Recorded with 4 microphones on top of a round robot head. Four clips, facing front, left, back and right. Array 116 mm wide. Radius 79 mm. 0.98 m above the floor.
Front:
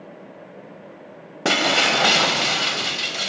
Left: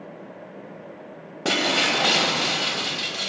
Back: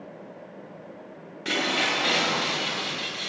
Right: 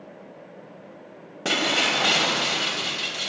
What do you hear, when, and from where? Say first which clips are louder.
1.4 s breaking glass: left 2 dB, front 7 dB; 10° left, 3 m